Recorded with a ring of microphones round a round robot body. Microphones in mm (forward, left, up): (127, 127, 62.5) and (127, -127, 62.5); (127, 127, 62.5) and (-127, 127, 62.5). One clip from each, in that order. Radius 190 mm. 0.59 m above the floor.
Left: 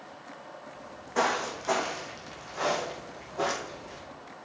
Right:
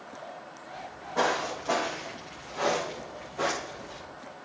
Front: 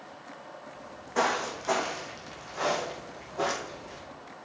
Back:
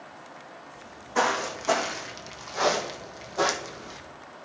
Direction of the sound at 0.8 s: 110° left.